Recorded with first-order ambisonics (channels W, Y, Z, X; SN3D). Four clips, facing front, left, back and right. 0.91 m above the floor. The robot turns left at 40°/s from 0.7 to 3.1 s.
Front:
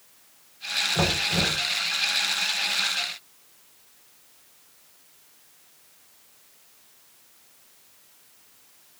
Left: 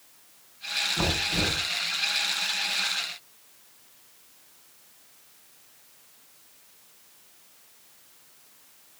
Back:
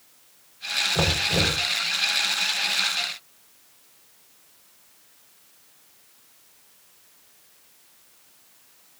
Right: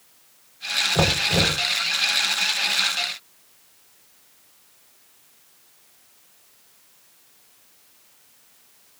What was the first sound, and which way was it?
Knocking, 105° right.